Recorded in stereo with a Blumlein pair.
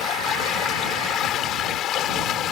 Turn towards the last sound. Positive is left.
turn(degrees=30)